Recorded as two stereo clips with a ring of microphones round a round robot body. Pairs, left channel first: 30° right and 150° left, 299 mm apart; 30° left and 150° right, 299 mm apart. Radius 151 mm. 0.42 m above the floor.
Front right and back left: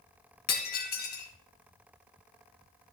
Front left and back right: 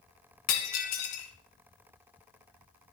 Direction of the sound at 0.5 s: 30° left.